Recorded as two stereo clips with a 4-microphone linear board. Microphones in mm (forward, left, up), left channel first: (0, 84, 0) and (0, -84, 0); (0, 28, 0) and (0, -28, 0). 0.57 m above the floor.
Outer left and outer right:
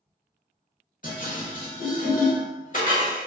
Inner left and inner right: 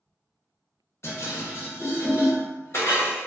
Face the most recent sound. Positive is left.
turn(degrees=60)  # may be behind; listen again after turning